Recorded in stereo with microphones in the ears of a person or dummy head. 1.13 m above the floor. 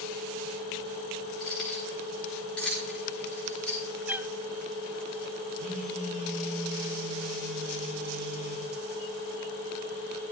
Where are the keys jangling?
5° left (ahead or behind), 6.5 m.